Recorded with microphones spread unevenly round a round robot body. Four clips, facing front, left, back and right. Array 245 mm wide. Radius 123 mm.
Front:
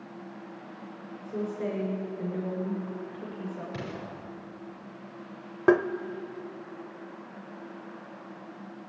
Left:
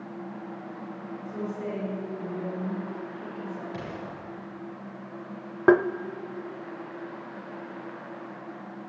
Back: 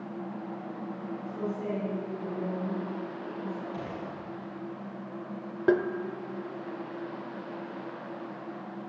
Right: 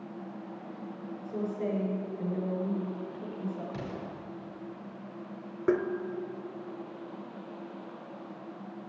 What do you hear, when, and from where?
1.2 s a woman speaking: 30° right, 5.5 m
3.7 s an explosion: 15° right, 5.5 m
5.7 s tapping: 60° left, 0.5 m